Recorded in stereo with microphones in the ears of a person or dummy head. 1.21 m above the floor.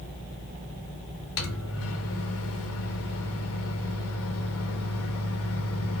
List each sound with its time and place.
1.4 s a microwave: 65° left (ahead or behind), 0.7 m